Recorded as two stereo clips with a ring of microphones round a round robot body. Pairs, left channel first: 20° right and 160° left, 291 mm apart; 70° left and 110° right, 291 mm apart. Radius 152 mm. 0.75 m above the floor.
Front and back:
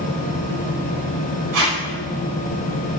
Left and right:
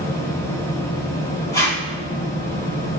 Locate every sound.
1.5 s tape being pulled: 145° left, 1.6 m